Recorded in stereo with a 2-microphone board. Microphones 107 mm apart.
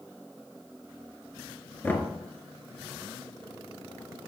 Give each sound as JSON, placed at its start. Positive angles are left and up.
{"t": 1.8, "sound": "knocking", "side_deg": 20, "distance_m": 1.4}